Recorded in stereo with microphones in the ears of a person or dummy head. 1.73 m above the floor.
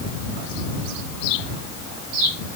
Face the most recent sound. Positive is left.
No sound to turn to.